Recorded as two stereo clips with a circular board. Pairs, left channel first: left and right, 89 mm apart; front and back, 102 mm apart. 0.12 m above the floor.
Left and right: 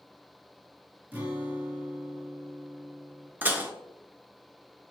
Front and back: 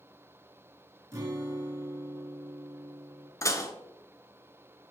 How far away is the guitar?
About 1.8 m.